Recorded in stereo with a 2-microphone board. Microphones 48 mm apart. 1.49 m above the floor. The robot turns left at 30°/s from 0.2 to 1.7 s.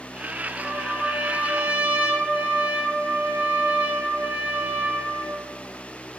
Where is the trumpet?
10° right, 1.1 m; by 5.5 s 45° right, 1.1 m.